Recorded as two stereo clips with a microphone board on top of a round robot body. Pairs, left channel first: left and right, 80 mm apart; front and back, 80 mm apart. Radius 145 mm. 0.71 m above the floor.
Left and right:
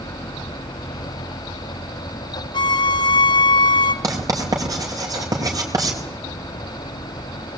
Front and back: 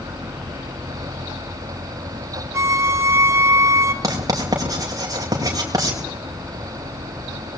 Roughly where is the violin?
Behind left.